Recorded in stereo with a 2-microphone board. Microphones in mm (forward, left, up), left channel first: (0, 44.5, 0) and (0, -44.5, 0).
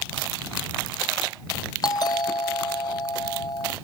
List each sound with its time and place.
1.8 s a doorbell: 50° left (ahead or behind)